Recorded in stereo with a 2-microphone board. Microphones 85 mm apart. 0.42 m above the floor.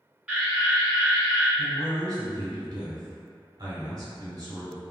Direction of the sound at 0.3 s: 10° right (ahead or behind).